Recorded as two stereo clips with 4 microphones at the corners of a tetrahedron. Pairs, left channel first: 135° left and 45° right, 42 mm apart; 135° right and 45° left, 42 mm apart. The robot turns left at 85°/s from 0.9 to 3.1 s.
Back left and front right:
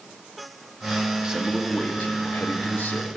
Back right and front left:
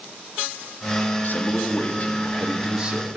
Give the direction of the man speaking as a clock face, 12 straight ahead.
4 o'clock.